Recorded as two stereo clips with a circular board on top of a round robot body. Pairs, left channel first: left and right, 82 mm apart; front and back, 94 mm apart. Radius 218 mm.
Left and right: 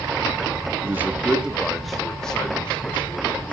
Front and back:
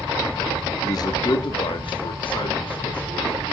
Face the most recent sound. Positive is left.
turn(degrees=20)